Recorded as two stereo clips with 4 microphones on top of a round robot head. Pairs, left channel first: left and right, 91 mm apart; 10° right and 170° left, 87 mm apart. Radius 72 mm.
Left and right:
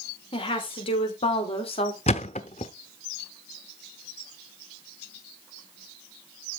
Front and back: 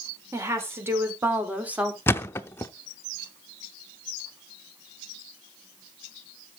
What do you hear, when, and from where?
0.3 s a woman speaking: 110° left, 4 m; by 2.0 s 95° left, 3 m
2.1 s a thud: 50° left, 0.8 m